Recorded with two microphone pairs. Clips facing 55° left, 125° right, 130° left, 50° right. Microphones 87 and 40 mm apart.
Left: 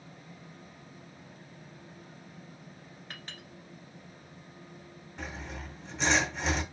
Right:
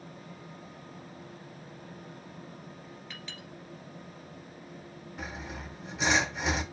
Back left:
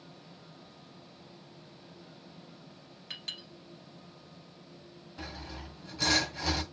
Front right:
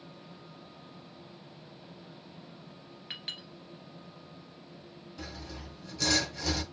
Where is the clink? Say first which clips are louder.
Right 2 dB, front right 1 dB; 15° left, 2.5 m.